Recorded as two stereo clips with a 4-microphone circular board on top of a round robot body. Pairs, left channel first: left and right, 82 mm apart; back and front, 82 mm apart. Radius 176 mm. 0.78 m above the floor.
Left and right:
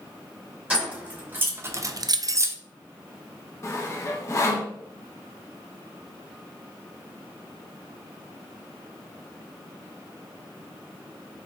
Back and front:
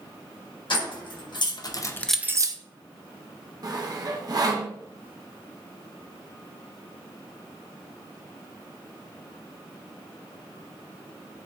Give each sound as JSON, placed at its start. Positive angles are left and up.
{"t": 0.7, "sound": "keys jangling", "azimuth_deg": -165, "distance_m": 1.6}
{"t": 3.6, "sound": "sawing", "azimuth_deg": 35, "distance_m": 0.9}